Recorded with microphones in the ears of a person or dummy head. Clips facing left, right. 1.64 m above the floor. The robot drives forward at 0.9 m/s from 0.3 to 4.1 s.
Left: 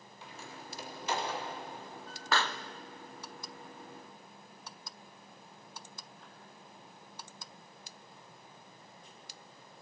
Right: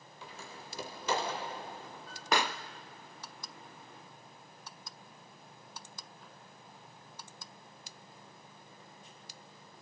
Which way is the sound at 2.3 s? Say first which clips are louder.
Right 2 dB; 20° right (ahead or behind).